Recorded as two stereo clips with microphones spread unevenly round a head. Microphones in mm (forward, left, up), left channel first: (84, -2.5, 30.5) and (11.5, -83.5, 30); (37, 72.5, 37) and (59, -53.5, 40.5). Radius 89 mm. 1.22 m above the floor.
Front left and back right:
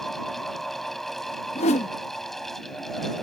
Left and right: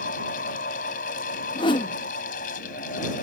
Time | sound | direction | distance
0.0 | a fan | 135° left | ?
1.6 | a whoosh | 50° left | ?